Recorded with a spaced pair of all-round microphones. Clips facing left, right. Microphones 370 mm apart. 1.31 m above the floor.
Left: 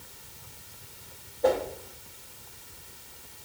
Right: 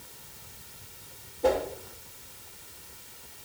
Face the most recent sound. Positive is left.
turn(degrees=-40)  # may be behind; listen again after turning